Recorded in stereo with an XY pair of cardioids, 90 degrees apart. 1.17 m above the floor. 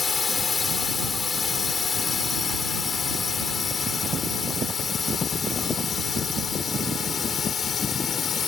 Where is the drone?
40° left; by 8.5 s 55° left.